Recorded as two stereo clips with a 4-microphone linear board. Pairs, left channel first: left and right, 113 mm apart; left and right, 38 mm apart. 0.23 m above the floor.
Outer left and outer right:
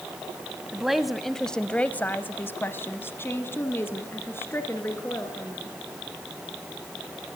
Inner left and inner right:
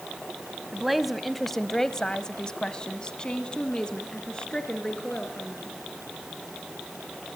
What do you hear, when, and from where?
0.7 s a woman speaking: 5° right (ahead or behind), 1.2 m; by 5.7 s 20° left (ahead or behind), 3.5 m